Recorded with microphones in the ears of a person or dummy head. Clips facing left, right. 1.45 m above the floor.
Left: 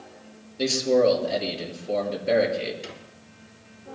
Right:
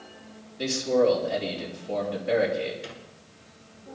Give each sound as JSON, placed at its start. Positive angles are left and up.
{"t": 0.6, "sound": "a man speaking", "side_deg": 50, "distance_m": 5.5}
{"t": 2.8, "sound": "a squeak", "side_deg": 50, "distance_m": 3.0}